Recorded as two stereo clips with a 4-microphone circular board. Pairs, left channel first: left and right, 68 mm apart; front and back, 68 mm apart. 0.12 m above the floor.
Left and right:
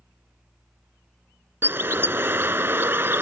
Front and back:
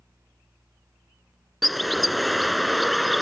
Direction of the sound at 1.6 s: 90° right.